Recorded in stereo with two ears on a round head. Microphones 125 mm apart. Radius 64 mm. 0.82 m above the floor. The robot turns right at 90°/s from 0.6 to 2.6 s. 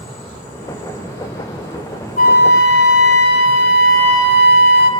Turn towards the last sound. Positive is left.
turn(degrees=90)